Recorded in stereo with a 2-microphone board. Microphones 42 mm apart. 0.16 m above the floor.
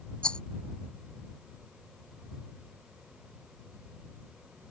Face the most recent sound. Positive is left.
turn(degrees=25)  # may be behind; listen again after turning